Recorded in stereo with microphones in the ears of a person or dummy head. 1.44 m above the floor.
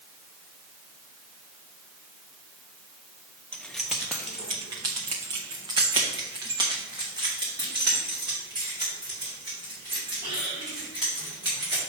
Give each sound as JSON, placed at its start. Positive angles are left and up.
{"t": 3.5, "sound": "keys jangling", "side_deg": 5, "distance_m": 0.6}